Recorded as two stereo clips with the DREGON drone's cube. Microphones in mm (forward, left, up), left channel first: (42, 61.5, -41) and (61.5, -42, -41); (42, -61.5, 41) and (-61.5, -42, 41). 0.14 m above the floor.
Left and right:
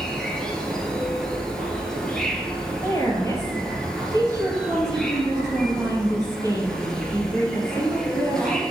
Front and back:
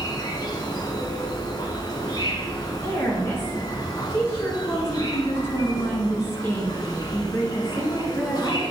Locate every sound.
0.0 s an insect: 20° left, 1.2 m
2.8 s a woman speaking: 50° left, 2.0 m